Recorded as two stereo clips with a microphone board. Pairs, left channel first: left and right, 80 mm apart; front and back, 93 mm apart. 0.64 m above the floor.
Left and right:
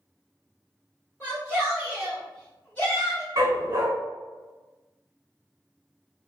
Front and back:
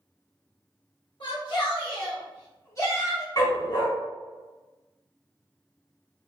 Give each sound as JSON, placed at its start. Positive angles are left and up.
{"t": 1.2, "sound": "a shout", "azimuth_deg": -25, "distance_m": 1.4}
{"t": 3.4, "sound": "a dog barking", "azimuth_deg": -45, "distance_m": 0.8}